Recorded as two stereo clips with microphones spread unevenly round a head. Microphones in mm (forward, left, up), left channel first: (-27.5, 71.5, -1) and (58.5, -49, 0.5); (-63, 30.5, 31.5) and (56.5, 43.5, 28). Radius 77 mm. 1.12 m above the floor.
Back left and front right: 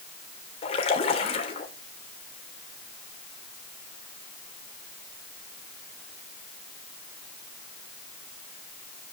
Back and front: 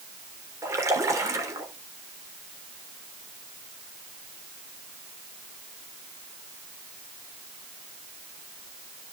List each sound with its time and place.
0.6 s a splash: 70° left, 3 m